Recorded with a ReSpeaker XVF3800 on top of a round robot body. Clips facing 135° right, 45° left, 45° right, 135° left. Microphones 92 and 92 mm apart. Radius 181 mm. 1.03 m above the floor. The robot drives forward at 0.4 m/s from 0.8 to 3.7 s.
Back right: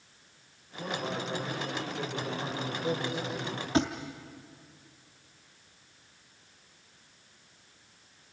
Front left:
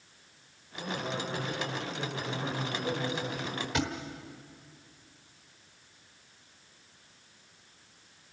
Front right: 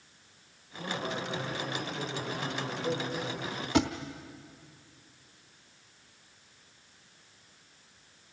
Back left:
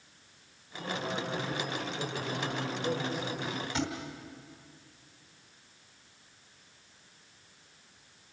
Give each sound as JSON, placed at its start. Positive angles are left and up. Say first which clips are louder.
{"t": 0.8, "sound": "a man speaking", "louder": "back right 1 dB, even", "azimuth_deg": -115, "distance_m": 5.5}
{"t": 3.7, "sound": "a thud", "louder": "back right 6 dB, front right 8 dB", "azimuth_deg": -75, "distance_m": 0.8}